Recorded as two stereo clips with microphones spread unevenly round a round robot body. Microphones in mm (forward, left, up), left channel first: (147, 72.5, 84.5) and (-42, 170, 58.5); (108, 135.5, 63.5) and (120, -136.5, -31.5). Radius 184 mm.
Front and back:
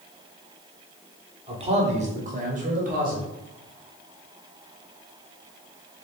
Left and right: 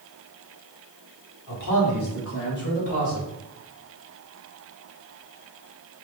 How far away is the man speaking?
About 1.7 m.